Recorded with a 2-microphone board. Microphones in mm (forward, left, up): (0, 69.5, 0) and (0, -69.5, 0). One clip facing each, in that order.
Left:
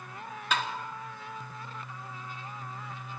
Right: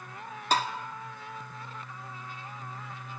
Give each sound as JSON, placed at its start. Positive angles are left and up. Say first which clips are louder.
{"t": 0.5, "sound": "tapping", "louder": "right 4 dB", "side_deg": -35, "distance_m": 1.9}